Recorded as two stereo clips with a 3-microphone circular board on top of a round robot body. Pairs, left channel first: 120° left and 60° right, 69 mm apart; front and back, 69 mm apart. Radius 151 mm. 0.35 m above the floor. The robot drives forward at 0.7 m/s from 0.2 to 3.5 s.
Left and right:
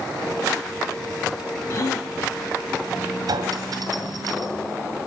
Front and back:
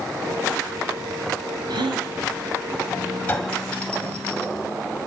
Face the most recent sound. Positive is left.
turn(degrees=-80)